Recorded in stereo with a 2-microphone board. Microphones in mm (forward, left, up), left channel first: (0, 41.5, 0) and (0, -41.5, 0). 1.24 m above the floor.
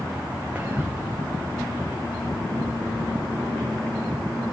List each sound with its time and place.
0.6 s whispering: 20° right (ahead or behind), 0.5 m